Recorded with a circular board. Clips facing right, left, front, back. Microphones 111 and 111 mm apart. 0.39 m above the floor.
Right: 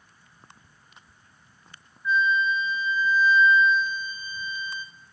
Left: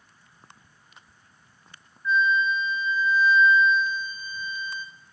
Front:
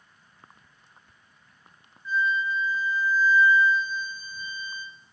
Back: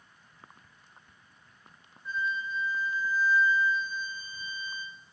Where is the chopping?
I don't hear chopping.